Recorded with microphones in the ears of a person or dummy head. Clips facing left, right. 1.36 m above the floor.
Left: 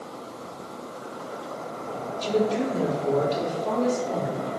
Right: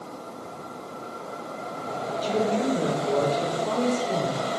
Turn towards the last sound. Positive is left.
turn(degrees=15)  # may be behind; listen again after turning